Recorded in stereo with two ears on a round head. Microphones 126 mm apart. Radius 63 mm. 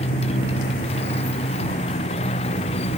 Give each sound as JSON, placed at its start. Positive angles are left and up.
{"t": 0.0, "sound": "a motorcycle", "side_deg": 45}